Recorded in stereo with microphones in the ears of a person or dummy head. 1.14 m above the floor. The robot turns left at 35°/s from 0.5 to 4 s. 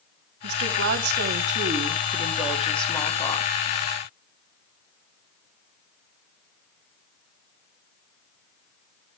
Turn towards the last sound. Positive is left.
turn(degrees=130)